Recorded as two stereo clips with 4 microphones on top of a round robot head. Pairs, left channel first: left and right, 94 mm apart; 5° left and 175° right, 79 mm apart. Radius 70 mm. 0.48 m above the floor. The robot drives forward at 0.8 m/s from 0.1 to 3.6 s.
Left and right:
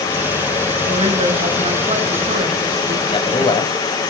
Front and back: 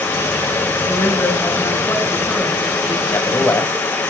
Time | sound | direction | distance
0.9 | a woman speaking | 60° right | 4.5 m
3.1 | a man speaking | 60° left | 3.5 m